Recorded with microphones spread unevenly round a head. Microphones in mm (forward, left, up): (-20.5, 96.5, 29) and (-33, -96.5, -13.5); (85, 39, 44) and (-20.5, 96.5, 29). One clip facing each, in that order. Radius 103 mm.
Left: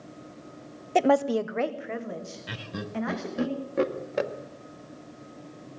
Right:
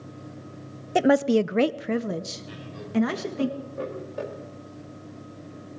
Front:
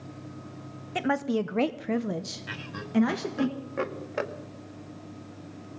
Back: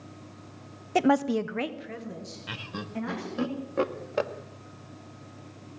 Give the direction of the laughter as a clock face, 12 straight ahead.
9 o'clock.